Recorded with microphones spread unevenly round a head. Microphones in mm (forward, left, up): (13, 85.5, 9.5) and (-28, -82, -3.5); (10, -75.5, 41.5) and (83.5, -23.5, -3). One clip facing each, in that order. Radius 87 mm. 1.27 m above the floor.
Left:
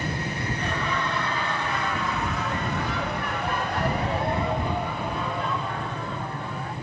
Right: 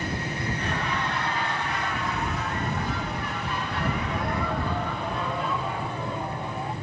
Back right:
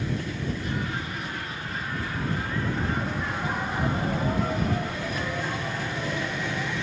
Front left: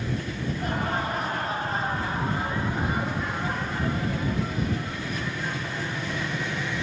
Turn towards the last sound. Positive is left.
turn(degrees=-170)